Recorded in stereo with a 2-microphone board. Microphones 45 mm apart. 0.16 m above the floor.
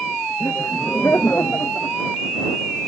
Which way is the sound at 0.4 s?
55° left (ahead or behind).